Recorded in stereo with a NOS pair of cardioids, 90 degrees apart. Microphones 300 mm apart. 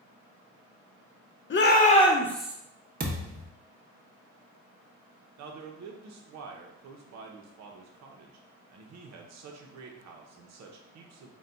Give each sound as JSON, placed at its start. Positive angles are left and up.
{"t": 1.5, "sound": "a shout", "azimuth_deg": 40, "distance_m": 0.9}
{"t": 3.0, "sound": "a thud", "azimuth_deg": -30, "distance_m": 1.1}
{"t": 5.4, "sound": "a man speaking", "azimuth_deg": -65, "distance_m": 0.9}